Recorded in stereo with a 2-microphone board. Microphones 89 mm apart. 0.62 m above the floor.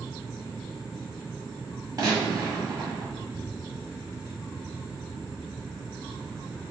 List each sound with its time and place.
2.0 s a gunshot: 40° right (ahead or behind), 1.7 m